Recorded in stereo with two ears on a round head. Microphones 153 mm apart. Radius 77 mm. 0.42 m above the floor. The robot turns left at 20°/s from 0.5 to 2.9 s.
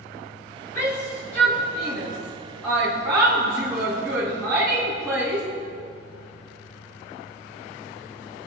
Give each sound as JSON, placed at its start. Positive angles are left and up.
{"t": 0.8, "sound": "a shout", "side_deg": 45, "distance_m": 4.0}